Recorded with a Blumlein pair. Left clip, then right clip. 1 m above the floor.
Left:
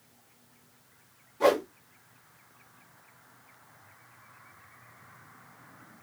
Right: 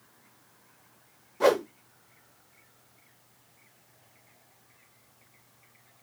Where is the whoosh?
20° right, 1.7 m.